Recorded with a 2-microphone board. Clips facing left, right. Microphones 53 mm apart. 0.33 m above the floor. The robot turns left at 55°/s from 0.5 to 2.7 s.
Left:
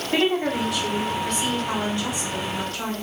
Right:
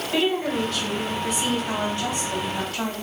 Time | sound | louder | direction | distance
0.1 | a woman speaking | left 1 dB | 30° left | 1.4 m